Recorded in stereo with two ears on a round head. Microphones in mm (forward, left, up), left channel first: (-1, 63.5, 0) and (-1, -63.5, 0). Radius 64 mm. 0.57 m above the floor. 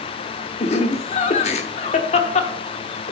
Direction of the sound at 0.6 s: 50° left (ahead or behind).